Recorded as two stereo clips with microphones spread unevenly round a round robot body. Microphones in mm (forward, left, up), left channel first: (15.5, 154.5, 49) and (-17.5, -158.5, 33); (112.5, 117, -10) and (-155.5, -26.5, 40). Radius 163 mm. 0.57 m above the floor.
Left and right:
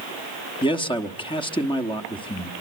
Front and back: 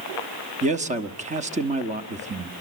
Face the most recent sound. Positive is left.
turn(degrees=145)